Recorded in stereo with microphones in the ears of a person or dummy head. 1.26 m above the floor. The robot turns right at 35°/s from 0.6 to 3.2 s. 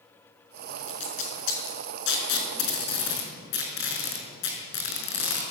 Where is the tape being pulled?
40° left (ahead or behind), 5.5 m; by 5.4 s 60° left (ahead or behind), 5.5 m.